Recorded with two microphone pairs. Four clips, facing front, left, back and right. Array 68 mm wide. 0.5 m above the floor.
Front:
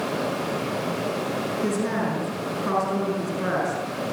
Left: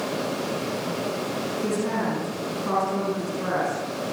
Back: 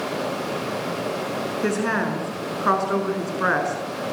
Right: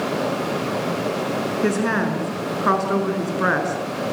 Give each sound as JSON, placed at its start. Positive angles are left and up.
{"t": 1.6, "sound": "a woman speaking", "azimuth_deg": -125, "distance_m": 6.0}